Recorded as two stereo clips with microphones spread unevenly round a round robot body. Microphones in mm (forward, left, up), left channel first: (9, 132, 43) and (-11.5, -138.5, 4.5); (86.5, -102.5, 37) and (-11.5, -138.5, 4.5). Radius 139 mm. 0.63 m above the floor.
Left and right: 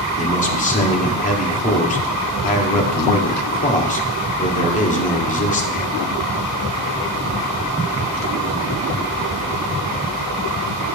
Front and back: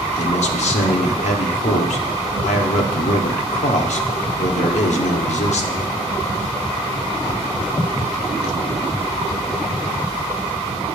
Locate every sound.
0.2 s a man speaking: 20° left, 1.2 m